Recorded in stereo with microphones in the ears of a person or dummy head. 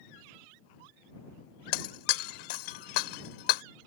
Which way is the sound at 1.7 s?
55° left (ahead or behind).